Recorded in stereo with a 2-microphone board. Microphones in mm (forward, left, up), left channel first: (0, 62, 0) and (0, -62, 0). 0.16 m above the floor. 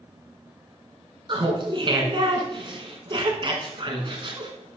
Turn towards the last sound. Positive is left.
turn(degrees=-40)  # may be behind; listen again after turning